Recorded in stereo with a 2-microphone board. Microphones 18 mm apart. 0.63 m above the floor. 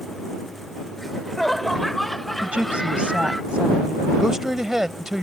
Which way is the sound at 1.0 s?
15° left (ahead or behind).